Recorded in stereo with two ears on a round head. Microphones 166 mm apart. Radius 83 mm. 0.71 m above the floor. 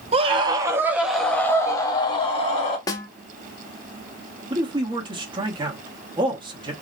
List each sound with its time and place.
0.1 s a scream: 35° right (ahead or behind), 1.1 m; by 2.8 s 40° left (ahead or behind), 1.5 m
2.9 s a snare drum: 20° left (ahead or behind), 0.7 m
4.5 s a man speaking: 30° right (ahead or behind), 1.0 m